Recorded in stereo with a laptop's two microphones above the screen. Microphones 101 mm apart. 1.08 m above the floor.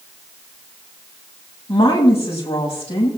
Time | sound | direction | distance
1.7 | a woman speaking | 65° left (ahead or behind) | 7 m